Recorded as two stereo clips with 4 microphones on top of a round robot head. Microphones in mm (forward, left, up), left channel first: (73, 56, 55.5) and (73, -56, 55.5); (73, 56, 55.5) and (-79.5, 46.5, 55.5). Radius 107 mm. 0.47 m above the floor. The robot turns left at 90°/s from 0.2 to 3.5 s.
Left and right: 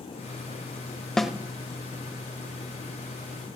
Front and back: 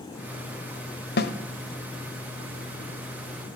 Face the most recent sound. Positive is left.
turn(degrees=155)